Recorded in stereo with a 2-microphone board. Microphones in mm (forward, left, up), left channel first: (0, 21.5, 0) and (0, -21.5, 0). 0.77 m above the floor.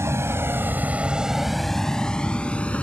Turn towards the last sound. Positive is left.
turn(degrees=30)  # may be behind; listen again after turning